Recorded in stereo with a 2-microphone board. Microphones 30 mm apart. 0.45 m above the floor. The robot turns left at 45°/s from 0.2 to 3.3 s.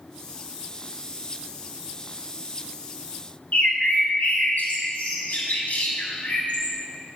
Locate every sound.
3.5 s a bird: 60° left (ahead or behind), 2.5 m